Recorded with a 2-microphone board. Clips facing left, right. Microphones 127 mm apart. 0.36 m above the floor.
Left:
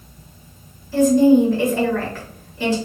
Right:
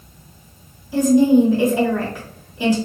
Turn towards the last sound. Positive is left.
turn(degrees=-15)  # may be behind; listen again after turning